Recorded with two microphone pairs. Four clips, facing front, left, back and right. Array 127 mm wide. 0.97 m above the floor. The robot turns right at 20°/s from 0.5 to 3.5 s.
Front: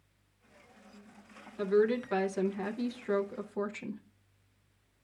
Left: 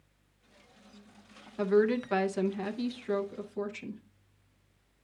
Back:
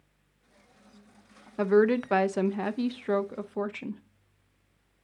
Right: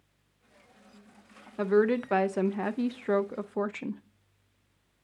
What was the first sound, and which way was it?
A woman speaking, 150° right.